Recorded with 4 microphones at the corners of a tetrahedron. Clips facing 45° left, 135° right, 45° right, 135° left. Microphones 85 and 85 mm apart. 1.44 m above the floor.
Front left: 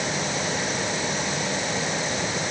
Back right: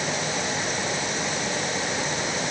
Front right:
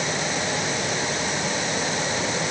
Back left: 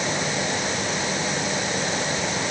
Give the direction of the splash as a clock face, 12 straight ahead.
No splash in this recording.